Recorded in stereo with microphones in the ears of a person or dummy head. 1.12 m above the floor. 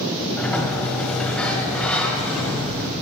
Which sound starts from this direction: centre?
A sliding door, at 0.4 s.